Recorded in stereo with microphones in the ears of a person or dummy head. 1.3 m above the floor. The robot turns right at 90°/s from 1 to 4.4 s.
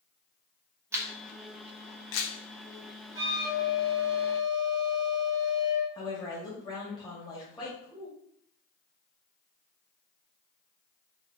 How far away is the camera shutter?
About 0.7 m.